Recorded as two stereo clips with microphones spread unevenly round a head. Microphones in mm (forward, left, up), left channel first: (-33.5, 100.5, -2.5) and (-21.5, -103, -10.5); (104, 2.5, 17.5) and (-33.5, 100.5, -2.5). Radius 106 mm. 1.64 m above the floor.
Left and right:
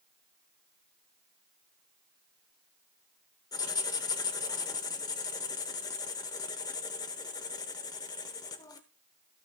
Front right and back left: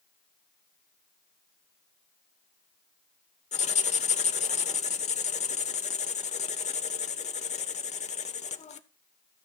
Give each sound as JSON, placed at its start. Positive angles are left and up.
{"t": 3.5, "sound": "writing", "azimuth_deg": 20, "distance_m": 0.8}